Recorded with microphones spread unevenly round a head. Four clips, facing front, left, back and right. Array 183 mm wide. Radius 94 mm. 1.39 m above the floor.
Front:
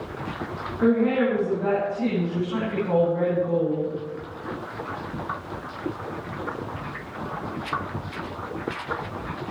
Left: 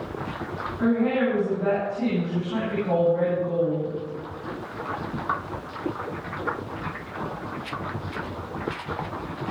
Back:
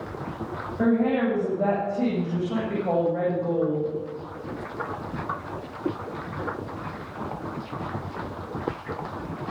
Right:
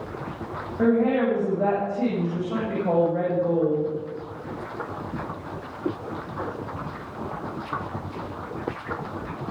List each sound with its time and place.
0.8 s a woman speaking: 140° right, 9.5 m; by 4.0 s 145° right, 7.5 m